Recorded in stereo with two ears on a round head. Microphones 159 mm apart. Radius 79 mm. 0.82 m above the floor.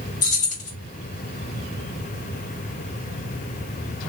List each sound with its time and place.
0.2 s keys jangling: 45° left (ahead or behind), 1.3 m